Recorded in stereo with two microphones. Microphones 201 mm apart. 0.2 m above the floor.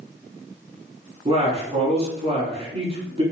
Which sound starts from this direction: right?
A man speaking, at 1.2 s.